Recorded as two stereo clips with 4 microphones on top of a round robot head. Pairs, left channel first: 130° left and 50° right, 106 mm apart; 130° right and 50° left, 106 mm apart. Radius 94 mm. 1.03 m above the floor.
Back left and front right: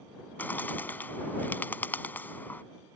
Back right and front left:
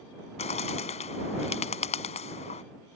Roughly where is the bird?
Behind right.